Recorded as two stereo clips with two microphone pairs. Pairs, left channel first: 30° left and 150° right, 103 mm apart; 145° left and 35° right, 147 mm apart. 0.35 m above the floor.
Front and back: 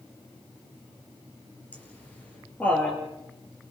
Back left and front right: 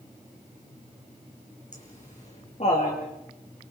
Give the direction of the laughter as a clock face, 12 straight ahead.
8 o'clock.